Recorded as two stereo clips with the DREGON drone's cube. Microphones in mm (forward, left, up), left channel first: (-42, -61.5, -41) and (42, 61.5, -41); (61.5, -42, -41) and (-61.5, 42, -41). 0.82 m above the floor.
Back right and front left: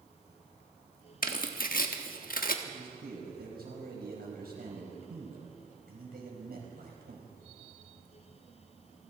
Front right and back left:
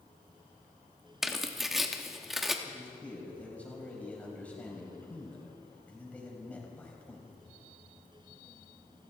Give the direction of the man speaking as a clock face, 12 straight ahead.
10 o'clock.